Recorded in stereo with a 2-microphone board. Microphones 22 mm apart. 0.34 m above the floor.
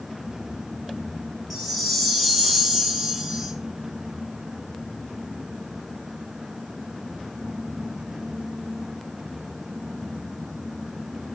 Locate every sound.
1.5 s a chime: 5° right (ahead or behind), 1.0 m